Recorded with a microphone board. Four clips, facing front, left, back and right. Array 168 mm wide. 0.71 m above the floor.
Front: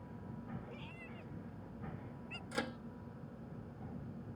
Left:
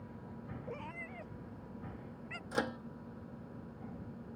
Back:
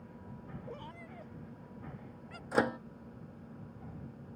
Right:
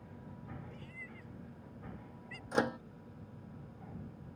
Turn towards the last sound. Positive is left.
turn(degrees=-160)